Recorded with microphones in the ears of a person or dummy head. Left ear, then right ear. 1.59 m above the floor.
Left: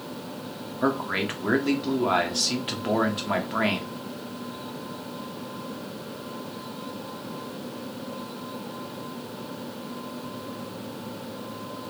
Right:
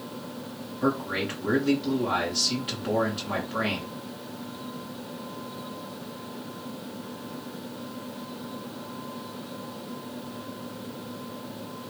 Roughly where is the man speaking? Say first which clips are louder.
Left 2 dB; left.